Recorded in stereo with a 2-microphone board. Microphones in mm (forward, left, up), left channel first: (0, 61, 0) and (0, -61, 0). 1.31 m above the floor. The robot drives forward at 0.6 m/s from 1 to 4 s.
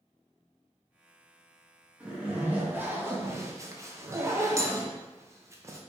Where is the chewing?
No chewing in this recording.